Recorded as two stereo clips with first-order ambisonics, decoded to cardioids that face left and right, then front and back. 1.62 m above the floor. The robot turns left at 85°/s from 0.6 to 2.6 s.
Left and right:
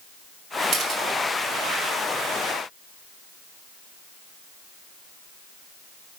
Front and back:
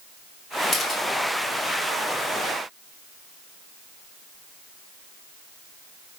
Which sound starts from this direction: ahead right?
A camera shutter, at 0.7 s.